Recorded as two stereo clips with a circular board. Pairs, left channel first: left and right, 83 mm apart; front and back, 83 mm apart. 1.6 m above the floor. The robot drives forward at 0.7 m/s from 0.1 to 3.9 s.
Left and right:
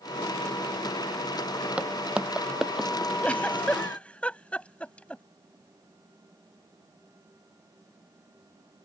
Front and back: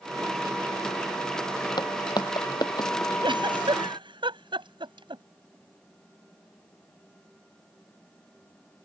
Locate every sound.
1.8 s footsteps: 15° right; by 3.1 s straight ahead
3.2 s a giggle: 165° left